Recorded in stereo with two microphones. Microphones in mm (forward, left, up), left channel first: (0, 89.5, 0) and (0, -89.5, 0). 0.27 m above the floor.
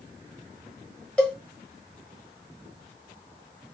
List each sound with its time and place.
1.2 s a cowbell: 5° left (ahead or behind), 0.9 m